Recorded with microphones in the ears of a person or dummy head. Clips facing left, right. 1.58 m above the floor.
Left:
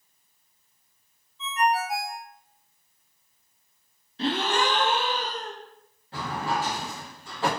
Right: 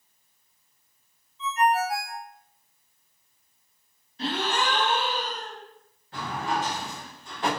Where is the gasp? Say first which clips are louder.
Left 3 dB; 60° left (ahead or behind), 0.7 m.